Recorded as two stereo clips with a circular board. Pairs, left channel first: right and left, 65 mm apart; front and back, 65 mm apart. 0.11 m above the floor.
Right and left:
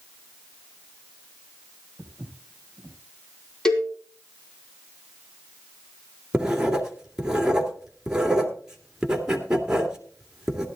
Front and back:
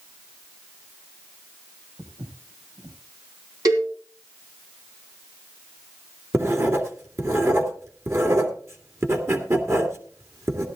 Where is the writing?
165° left, 2 m.